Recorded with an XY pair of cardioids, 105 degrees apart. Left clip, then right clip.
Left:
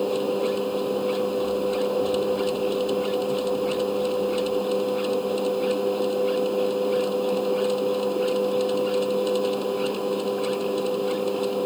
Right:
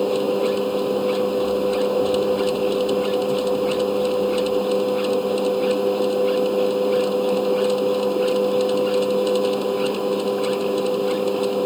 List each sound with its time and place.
0.0 s a machine running: 25° right